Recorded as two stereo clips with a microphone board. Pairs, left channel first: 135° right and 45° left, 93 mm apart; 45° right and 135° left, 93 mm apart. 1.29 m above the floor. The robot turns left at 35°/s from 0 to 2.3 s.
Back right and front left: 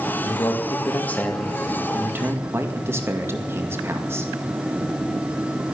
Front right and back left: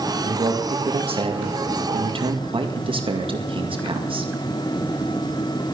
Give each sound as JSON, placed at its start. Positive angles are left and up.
{"t": 0.2, "sound": "a man speaking", "azimuth_deg": 180, "distance_m": 2.0}